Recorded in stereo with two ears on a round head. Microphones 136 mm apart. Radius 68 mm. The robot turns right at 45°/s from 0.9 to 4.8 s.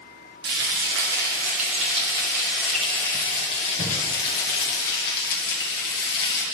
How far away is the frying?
About 1.2 m.